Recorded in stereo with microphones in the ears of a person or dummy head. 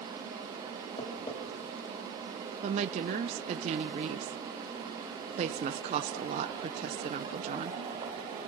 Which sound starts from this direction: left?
Tapping, at 1.0 s.